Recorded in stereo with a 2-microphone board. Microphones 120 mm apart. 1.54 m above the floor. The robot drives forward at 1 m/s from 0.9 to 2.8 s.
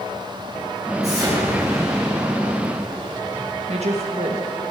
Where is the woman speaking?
70° right (ahead or behind), 1.6 m.